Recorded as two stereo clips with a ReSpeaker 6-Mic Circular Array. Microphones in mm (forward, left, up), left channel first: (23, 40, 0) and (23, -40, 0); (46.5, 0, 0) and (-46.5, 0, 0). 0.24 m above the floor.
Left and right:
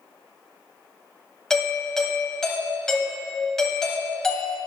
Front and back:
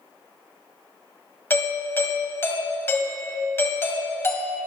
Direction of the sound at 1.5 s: 15° left.